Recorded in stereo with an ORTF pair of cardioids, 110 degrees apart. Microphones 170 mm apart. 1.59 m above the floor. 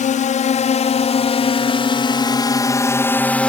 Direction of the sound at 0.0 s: 50° left.